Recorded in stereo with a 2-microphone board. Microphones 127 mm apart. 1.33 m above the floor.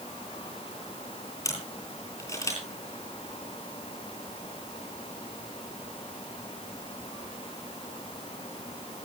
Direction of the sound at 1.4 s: 25° left (ahead or behind).